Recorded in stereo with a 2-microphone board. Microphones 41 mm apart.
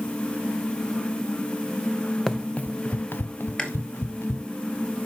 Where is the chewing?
20° left (ahead or behind), 1.3 m.